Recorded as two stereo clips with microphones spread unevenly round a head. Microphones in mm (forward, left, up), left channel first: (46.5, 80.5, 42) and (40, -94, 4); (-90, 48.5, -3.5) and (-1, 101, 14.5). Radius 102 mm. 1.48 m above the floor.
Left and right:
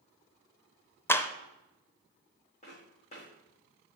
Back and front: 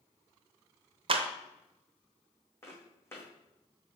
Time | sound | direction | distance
1.1 | a clap | 20° left | 0.7 m
2.6 | footsteps | 140° left | 4 m